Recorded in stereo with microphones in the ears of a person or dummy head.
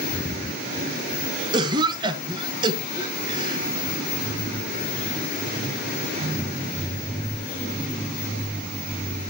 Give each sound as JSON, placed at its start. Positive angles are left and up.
{"t": 1.5, "sound": "a cough", "side_deg": -25, "distance_m": 1.6}